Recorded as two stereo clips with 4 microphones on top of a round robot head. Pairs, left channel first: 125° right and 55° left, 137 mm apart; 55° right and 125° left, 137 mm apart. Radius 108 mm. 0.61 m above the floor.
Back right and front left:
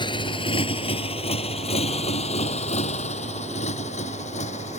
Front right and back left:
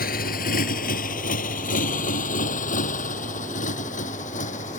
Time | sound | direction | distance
0.0 | a motorcycle | 70° right | ?